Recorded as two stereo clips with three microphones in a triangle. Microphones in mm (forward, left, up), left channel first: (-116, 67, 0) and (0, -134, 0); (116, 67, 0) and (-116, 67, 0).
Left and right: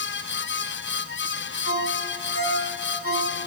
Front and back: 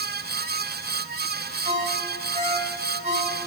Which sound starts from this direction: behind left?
A ringtone, at 1.6 s.